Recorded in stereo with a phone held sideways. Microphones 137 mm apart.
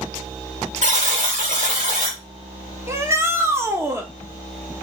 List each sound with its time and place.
0.8 s a buzzer: 65° right (ahead or behind), 1.9 m
2.9 s a shout: 20° right (ahead or behind), 1.2 m